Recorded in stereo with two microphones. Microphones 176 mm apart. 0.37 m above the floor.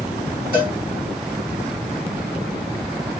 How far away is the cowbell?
About 3 m.